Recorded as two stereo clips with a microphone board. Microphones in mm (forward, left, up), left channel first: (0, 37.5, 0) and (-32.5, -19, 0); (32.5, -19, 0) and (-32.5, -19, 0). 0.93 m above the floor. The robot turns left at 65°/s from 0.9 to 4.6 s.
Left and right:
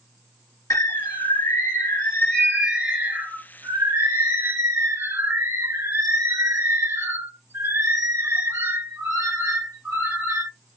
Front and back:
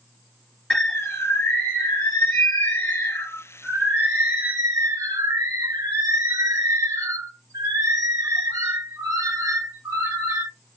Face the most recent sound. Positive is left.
turn(degrees=-160)